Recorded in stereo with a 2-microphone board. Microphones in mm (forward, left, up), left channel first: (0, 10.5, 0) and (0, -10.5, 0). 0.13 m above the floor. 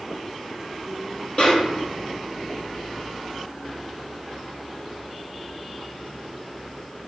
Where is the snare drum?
45° left (ahead or behind), 1.7 m.